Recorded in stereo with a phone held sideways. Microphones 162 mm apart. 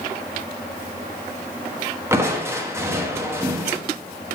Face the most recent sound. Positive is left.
turn(degrees=-15)  # may be behind; listen again after turning